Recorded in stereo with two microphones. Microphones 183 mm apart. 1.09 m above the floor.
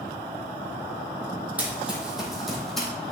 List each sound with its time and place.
1.6 s running footsteps: 10° right (ahead or behind), 2 m; by 2.9 s centre (ahead or behind), 2.5 m